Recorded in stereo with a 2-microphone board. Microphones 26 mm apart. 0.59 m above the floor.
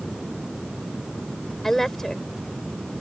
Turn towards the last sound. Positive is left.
turn(degrees=10)  # may be behind; listen again after turning